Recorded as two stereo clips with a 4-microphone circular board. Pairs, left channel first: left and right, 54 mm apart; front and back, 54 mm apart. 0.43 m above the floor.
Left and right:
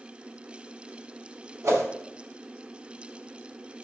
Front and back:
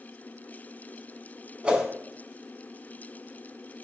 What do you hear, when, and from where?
1.6 s a whoosh: 110° right, 0.6 m